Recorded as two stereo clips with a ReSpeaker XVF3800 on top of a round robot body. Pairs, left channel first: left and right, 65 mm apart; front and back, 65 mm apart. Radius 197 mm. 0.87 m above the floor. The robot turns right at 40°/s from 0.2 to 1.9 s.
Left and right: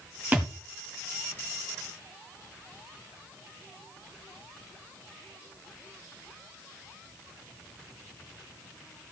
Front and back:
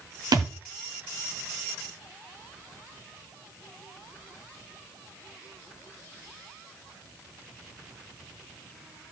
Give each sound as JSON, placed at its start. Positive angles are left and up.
{"t": 0.3, "sound": "a thud", "azimuth_deg": -160, "distance_m": 1.1}